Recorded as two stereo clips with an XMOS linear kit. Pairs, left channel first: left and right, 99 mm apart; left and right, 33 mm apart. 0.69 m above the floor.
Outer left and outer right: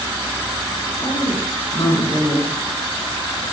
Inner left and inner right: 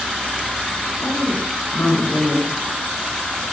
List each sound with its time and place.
1.0 s a woman speaking: 45° left (ahead or behind), 9.5 m